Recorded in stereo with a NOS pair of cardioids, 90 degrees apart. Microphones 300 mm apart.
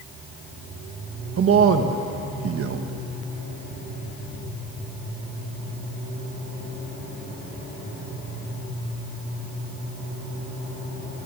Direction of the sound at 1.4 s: 50° right.